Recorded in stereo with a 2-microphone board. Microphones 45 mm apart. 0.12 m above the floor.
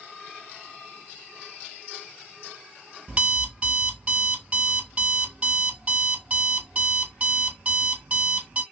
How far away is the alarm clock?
About 1.2 m.